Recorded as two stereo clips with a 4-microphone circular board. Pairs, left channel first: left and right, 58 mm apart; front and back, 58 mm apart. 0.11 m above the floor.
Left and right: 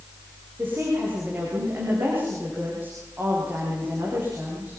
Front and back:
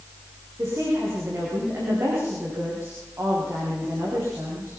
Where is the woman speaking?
145° right, 9.5 m.